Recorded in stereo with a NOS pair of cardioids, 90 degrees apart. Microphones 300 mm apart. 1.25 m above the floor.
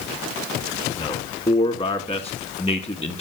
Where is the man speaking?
20° left, 2.5 m.